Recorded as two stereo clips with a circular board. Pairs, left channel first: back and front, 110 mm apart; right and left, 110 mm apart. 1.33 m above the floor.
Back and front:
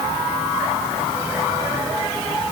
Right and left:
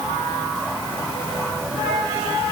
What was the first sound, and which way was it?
Only background noise.